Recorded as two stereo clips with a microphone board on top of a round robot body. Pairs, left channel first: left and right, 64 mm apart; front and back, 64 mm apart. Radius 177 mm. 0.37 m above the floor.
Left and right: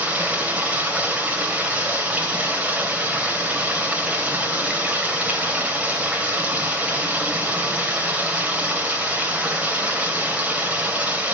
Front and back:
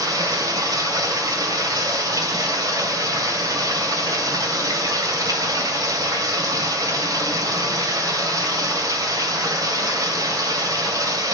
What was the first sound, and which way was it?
Running water, 160° right.